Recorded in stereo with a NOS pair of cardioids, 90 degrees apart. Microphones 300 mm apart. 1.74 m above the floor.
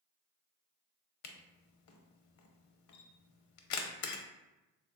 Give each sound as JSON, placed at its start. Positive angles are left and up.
{"t": 1.2, "sound": "a camera shutter", "azimuth_deg": 70, "distance_m": 0.5}